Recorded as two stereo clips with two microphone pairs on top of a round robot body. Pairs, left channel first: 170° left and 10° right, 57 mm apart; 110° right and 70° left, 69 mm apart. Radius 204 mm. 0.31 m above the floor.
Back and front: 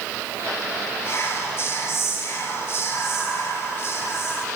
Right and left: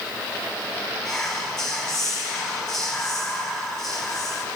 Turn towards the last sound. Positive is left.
turn(degrees=175)